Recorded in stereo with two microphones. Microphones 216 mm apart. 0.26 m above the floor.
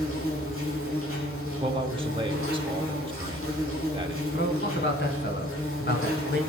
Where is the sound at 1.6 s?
25° right (ahead or behind), 1.1 m.